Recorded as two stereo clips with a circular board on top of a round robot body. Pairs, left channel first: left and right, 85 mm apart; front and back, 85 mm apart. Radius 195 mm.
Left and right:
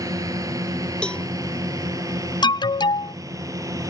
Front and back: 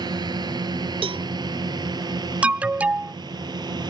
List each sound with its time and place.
0.0 s a drone: 140° right
1.0 s a cowbell: 170° left
2.4 s an alarm: 105° left